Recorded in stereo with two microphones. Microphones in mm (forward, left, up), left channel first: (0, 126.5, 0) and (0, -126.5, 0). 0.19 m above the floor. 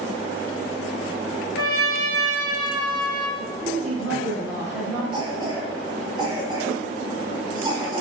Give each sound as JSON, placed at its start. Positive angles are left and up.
{"t": 1.6, "sound": "a trumpet", "side_deg": 65, "distance_m": 1.2}
{"t": 3.4, "sound": "a woman speaking", "side_deg": -5, "distance_m": 1.4}
{"t": 5.1, "sound": "a cough", "side_deg": -20, "distance_m": 1.5}